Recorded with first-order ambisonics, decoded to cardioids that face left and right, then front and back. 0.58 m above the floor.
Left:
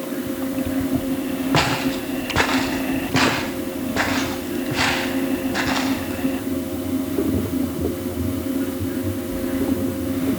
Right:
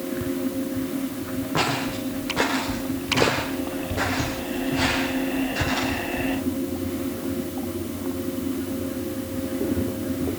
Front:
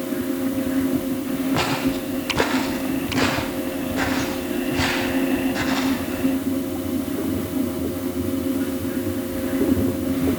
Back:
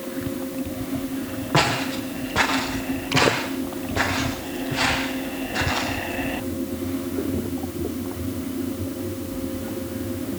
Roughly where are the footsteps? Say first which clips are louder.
Left 4 dB, back 4 dB; behind left.